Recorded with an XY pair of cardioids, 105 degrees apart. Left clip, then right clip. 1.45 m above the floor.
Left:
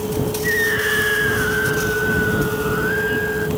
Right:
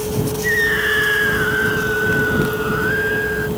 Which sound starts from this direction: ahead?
A scream, at 0.4 s.